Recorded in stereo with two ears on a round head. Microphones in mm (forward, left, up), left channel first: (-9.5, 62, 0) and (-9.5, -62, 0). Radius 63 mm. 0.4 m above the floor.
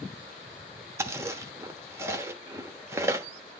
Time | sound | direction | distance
1.0 | chewing | 20° right (ahead or behind) | 1.0 m